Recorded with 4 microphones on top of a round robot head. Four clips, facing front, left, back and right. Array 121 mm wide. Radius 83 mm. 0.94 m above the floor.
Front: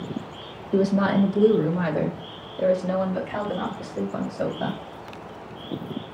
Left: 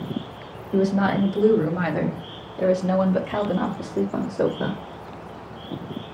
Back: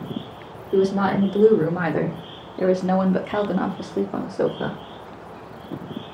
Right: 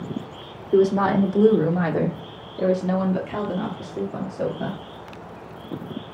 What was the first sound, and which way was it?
A woman speaking, 125° right.